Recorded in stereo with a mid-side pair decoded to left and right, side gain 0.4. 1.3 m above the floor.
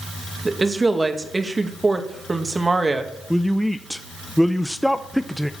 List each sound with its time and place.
0.5 s a woman speaking: 25° right, 2 m
3.3 s a woman speaking: 5° left, 0.7 m